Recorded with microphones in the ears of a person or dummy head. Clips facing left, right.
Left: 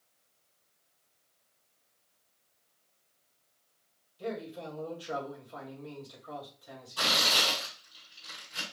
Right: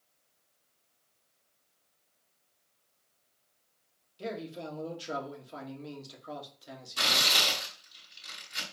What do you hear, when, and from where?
4.2 s a man speaking: 35° right (ahead or behind), 2 m
7.0 s tearing paper: 35° right (ahead or behind), 4 m